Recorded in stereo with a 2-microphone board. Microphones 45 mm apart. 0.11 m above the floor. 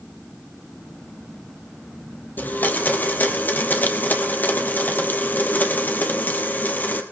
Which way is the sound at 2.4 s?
45° left (ahead or behind).